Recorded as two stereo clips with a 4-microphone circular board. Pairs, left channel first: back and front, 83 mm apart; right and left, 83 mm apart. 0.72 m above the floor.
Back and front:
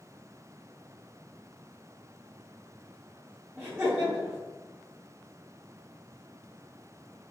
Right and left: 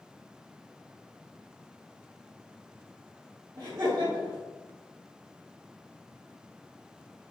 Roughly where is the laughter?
Ahead left.